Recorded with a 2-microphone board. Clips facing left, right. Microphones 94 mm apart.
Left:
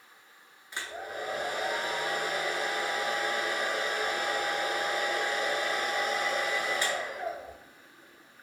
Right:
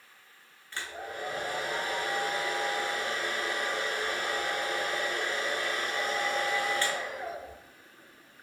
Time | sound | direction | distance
0.7 | a hair dryer | 15° left (ahead or behind) | 0.5 m